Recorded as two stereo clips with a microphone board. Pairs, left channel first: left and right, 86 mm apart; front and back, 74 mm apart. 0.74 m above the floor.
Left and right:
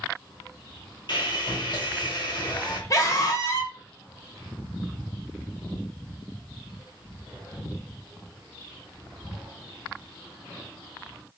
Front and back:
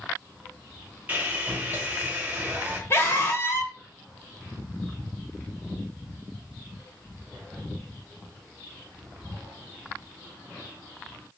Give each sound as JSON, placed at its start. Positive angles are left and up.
{"t": 1.1, "sound": "sawing", "azimuth_deg": 115, "distance_m": 0.9}
{"t": 2.9, "sound": "a scream", "azimuth_deg": 50, "distance_m": 1.1}